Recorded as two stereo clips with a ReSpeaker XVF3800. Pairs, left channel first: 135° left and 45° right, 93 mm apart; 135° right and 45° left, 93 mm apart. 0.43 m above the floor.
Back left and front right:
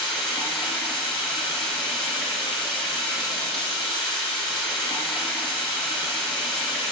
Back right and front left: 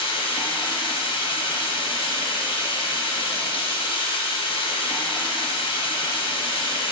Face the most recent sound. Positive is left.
turn(degrees=-140)